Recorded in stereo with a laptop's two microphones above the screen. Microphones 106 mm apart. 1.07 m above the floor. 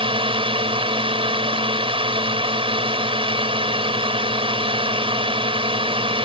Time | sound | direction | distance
0.0 | a drone | 65° right (ahead or behind) | ?